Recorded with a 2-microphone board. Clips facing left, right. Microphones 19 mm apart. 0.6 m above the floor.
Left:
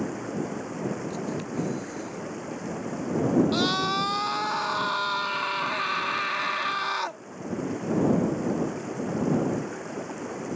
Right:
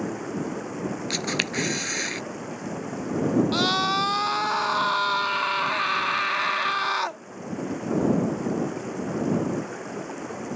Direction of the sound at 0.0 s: 5° right (ahead or behind).